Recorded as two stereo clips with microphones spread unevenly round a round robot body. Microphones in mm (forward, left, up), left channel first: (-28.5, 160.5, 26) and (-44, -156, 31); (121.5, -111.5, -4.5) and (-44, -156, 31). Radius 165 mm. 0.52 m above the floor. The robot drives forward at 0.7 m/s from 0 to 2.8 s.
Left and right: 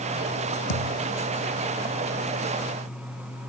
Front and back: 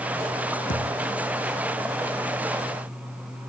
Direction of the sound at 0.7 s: 65° left.